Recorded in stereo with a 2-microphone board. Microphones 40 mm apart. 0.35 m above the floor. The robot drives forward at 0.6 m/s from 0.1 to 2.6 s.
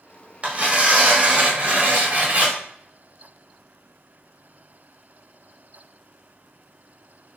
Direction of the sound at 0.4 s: 35° right (ahead or behind).